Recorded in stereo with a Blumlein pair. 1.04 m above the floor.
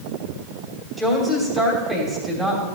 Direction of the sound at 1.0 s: 5° right.